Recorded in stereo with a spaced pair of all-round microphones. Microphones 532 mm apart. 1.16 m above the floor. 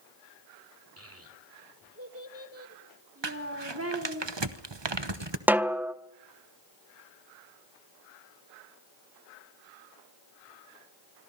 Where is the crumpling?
50° right (ahead or behind), 1.0 m.